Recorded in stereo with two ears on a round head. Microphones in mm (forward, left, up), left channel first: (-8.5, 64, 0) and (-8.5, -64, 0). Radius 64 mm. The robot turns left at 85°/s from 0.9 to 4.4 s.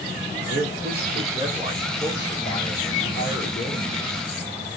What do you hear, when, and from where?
0.5 s a man speaking: 95° right, 2.0 m; by 3.9 s 10° left, 2.0 m